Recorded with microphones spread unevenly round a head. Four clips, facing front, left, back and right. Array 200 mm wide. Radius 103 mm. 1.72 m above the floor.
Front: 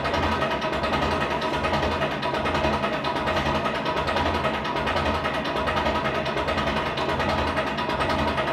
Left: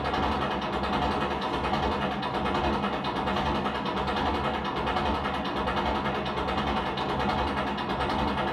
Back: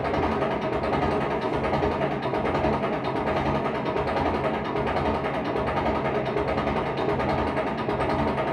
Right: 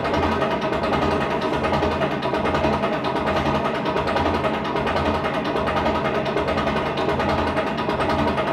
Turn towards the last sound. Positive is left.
turn(degrees=-105)